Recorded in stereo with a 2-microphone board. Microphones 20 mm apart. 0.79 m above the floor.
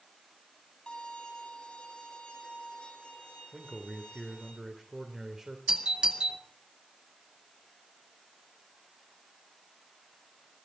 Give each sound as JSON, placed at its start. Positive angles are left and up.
{"t": 0.9, "sound": "a violin", "side_deg": 60, "distance_m": 4.0}
{"t": 3.5, "sound": "a man speaking", "side_deg": -15, "distance_m": 2.5}
{"t": 5.7, "sound": "a doorbell", "side_deg": -55, "distance_m": 2.0}